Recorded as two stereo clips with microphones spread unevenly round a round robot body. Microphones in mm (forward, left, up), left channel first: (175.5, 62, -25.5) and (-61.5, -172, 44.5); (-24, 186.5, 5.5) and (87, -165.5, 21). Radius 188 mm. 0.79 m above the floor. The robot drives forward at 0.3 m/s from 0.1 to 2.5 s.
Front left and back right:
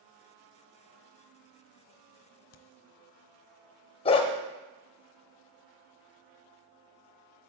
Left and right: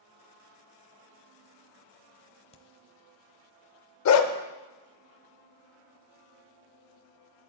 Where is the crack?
45° left, 0.5 m.